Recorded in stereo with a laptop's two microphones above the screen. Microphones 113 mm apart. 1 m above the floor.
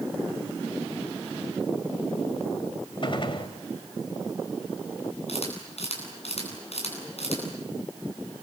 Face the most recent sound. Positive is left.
turn(degrees=65)  # may be behind; listen again after turning